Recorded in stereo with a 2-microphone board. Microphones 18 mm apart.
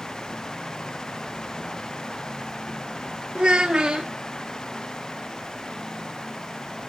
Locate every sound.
3.4 s a child speaking: 60° right (ahead or behind), 1.1 m